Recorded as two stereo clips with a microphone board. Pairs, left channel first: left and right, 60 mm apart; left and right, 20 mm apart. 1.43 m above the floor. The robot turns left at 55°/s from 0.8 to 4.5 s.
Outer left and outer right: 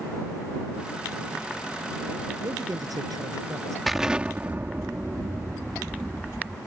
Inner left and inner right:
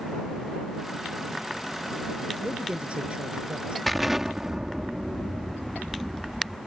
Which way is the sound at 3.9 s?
Straight ahead.